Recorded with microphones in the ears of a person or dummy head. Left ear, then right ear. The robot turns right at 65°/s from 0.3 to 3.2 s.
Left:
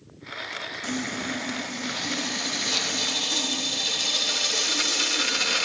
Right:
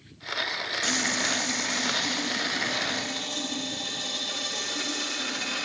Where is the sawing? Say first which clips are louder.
Right 6 dB; 80° right, 2 m; by 5.6 s 70° left, 2 m.